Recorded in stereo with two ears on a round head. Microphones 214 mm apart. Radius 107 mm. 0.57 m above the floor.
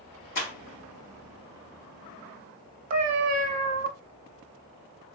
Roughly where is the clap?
Left.